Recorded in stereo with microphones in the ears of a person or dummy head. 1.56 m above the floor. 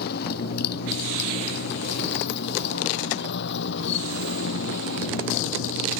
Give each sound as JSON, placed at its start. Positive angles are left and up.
{"t": 0.0, "sound": "a motorcycle", "side_deg": 55}